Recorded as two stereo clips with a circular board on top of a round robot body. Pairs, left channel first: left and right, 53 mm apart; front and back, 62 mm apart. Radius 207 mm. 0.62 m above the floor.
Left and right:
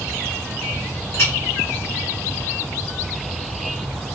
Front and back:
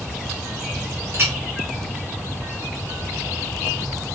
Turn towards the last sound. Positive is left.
turn(degrees=130)